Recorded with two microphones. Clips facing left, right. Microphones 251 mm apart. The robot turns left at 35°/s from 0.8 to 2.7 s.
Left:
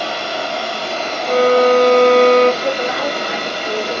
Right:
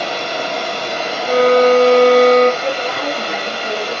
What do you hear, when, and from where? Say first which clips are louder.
0.0 s running water: right 1 dB; 160° right, 0.9 m; by 4.0 s 135° left, 0.9 m
1.2 s a violin: right 1 dB; 5° right, 2 m; by 2.5 s 45° right, 2 m
2.6 s a woman speaking: left 1 dB; 40° right (ahead or behind), 1.4 m